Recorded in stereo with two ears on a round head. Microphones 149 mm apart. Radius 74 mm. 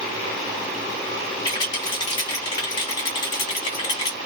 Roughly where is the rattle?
Left.